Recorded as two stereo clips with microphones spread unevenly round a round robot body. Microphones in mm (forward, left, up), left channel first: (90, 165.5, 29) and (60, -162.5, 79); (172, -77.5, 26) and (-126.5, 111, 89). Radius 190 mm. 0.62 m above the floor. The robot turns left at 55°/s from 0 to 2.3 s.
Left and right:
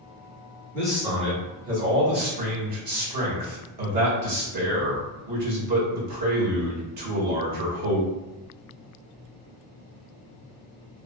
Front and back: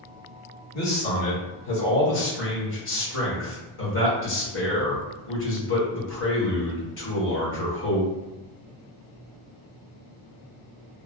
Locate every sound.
0.7 s a man speaking: 5° left, 1.5 m; by 8.1 s 80° right, 1.5 m